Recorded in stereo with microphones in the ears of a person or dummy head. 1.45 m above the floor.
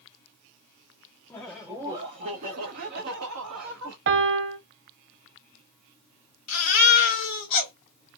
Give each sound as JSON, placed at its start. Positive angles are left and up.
{"t": 1.3, "sound": "laughter", "side_deg": 10, "distance_m": 0.7}
{"t": 4.1, "sound": "a piano", "side_deg": -65, "distance_m": 0.9}
{"t": 6.5, "sound": "a baby crying", "side_deg": 50, "distance_m": 1.4}